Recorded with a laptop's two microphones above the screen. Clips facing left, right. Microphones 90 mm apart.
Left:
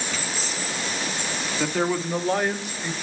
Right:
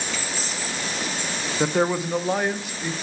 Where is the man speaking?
25° right (ahead or behind), 0.7 m; by 2.9 s centre (ahead or behind), 1.7 m.